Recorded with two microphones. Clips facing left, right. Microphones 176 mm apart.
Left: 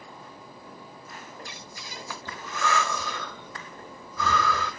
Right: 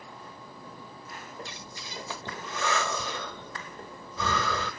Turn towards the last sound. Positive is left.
turn(degrees=-20)  # may be behind; listen again after turning